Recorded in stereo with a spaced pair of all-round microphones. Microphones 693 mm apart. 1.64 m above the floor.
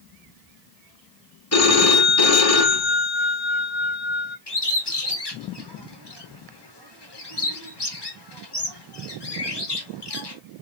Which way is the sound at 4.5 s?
35° left (ahead or behind).